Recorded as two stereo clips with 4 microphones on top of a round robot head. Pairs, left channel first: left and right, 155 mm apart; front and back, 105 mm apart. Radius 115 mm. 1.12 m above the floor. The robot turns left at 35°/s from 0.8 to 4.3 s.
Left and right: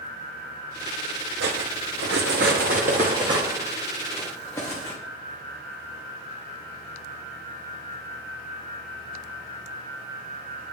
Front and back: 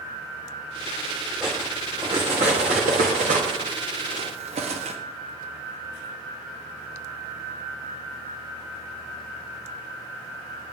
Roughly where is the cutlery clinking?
Right.